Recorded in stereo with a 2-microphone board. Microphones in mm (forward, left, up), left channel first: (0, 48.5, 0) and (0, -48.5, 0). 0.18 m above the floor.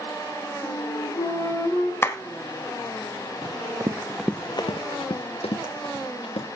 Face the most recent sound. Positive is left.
turn(degrees=80)